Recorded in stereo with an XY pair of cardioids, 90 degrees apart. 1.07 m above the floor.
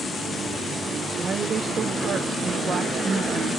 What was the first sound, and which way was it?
A woman speaking, 45° right.